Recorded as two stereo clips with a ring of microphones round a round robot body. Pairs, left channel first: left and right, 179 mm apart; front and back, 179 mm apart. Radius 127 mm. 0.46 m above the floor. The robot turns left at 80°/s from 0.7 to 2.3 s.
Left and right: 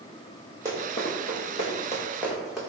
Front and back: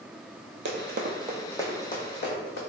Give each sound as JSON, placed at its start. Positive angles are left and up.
{"t": 0.7, "sound": "running footsteps", "azimuth_deg": -165, "distance_m": 0.8}